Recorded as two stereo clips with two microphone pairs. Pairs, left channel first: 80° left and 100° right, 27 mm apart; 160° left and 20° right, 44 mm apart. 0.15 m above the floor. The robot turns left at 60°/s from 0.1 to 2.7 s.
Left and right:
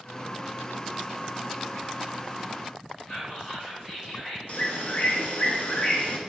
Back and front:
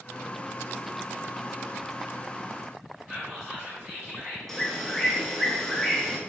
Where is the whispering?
55° left, 1.9 m.